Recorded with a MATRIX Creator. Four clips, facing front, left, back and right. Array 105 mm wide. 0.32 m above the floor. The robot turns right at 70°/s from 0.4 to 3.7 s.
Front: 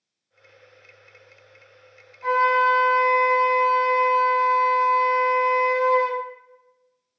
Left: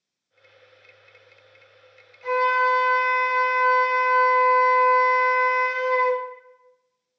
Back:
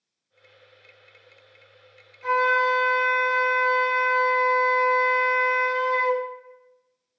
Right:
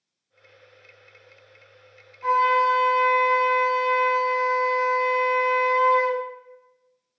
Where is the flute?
45° right, 1.6 m; by 6.2 s 60° left, 1.6 m.